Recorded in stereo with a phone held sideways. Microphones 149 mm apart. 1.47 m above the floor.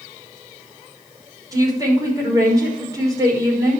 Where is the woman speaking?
25° right (ahead or behind), 5.5 m.